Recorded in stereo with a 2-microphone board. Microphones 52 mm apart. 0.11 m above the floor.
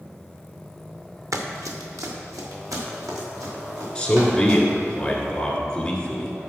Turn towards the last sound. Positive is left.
turn(degrees=15)  # may be behind; listen again after turning